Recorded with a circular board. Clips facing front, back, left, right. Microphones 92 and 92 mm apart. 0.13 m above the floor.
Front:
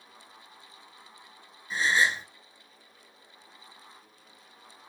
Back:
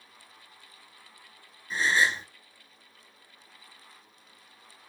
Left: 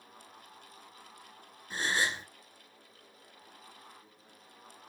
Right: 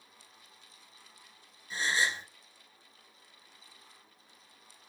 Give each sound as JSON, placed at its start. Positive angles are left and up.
{"t": 1.7, "sound": "a gasp", "azimuth_deg": 90, "distance_m": 0.9}